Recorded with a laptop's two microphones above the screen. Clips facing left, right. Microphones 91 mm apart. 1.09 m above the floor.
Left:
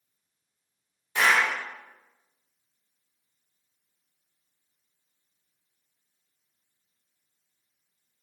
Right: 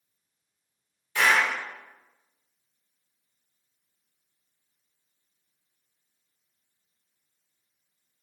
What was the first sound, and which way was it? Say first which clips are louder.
A clap: even; 25° left (ahead or behind).